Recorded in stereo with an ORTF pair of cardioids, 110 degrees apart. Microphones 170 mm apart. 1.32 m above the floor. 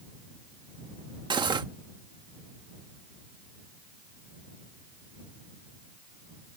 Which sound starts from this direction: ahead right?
Cutlery clinking, at 1.3 s.